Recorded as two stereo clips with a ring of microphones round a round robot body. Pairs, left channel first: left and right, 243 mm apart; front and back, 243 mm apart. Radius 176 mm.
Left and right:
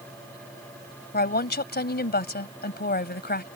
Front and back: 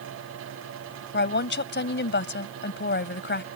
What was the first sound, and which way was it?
A woman speaking, 40° left.